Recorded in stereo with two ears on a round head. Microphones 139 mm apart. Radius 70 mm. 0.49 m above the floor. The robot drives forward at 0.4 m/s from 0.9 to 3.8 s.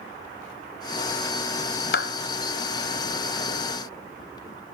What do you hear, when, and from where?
1.9 s a clap: 75° left (ahead or behind), 2 m